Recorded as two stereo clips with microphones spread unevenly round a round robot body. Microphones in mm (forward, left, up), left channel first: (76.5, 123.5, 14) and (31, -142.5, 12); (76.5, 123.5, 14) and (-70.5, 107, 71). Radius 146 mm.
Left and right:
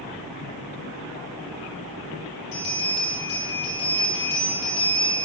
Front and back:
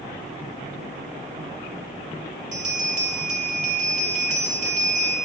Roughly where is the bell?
Behind left.